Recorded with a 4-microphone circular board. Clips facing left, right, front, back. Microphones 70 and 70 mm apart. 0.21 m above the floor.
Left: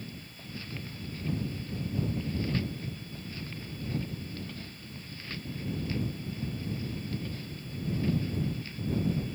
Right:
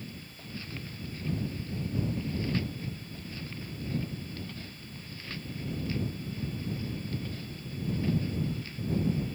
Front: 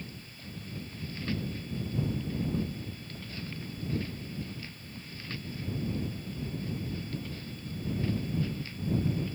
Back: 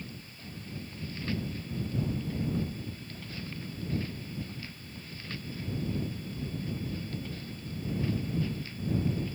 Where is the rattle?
I don't hear a rattle.